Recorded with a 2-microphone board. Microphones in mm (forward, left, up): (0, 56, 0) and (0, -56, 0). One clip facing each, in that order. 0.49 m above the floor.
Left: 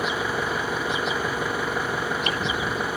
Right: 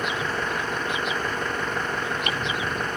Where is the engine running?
5° left (ahead or behind).